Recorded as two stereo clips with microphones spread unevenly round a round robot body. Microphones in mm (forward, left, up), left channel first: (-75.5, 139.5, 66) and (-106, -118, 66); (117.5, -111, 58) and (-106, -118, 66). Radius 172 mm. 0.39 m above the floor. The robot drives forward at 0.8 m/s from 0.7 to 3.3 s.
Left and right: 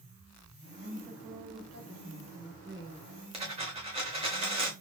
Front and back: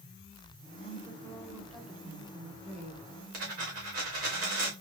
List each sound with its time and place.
0.8 s a woman speaking: 50° right, 1.5 m; by 3.0 s 135° right, 1.6 m
3.3 s a dropped coin: 165° right, 1.9 m